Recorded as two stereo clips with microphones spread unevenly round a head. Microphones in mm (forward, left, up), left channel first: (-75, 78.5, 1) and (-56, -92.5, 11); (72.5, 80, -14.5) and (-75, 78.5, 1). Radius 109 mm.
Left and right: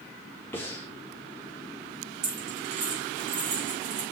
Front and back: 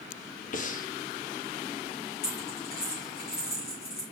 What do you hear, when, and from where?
0.5 s breathing: 20° left, 0.7 m
2.2 s a dropped coin: 40° right, 3 m